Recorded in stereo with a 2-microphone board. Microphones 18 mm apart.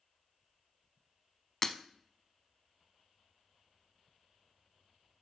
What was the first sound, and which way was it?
Breaking glass, 20° left (ahead or behind).